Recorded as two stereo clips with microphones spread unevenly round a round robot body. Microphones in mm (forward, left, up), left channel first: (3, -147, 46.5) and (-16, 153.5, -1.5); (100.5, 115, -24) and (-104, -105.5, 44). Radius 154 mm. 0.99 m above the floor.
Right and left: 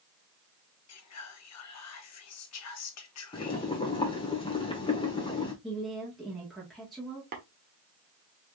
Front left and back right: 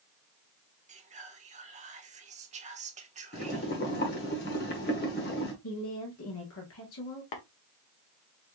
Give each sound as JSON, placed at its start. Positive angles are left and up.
{"t": 0.9, "sound": "whispering", "azimuth_deg": -60, "distance_m": 1.0}
{"t": 3.3, "sound": "boiling", "azimuth_deg": -15, "distance_m": 1.2}
{"t": 5.6, "sound": "a woman speaking", "azimuth_deg": 5, "distance_m": 1.7}
{"t": 7.3, "sound": "tapping", "azimuth_deg": 30, "distance_m": 1.2}